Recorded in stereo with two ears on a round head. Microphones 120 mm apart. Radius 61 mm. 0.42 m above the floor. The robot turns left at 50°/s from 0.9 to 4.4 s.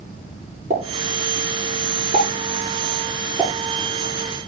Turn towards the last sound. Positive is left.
turn(degrees=60)  # may be behind; listen again after turning